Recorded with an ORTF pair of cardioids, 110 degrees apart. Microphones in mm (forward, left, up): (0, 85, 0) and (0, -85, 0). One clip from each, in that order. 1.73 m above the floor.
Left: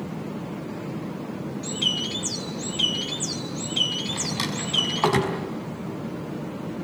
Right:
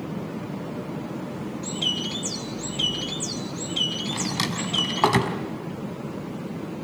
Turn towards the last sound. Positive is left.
turn(degrees=-20)